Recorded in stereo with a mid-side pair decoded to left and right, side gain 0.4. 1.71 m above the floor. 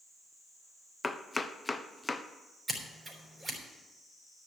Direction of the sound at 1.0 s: 15° left.